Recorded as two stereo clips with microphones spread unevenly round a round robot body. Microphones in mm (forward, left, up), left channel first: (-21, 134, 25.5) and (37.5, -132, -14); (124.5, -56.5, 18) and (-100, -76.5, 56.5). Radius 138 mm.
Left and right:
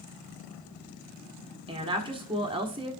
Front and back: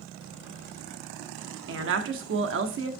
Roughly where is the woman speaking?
Behind right.